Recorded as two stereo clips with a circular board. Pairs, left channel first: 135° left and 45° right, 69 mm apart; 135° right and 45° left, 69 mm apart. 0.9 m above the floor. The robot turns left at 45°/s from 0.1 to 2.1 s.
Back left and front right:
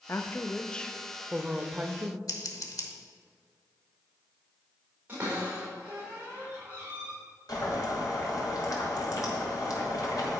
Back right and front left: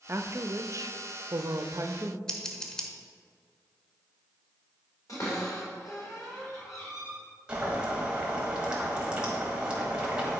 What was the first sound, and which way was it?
A woman speaking, 90° left.